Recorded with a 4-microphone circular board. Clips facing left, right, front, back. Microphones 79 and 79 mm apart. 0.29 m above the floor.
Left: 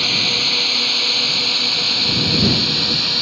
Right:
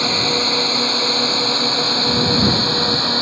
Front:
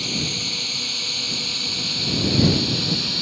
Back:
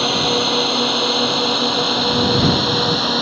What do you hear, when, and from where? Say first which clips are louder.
0.0 s a drone: right 5 dB, back 12 dB; 155° right; by 3.2 s 145° right